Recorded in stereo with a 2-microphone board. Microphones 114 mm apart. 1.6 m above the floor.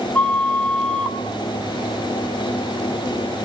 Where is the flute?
10° left (ahead or behind), 1.5 m.